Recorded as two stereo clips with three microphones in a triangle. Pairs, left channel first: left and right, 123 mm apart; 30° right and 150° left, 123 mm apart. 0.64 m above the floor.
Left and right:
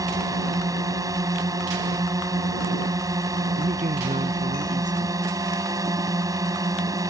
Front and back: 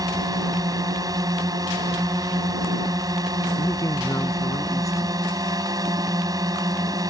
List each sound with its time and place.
0.0 s a drone: 150° right
3.6 s a man speaking: 95° right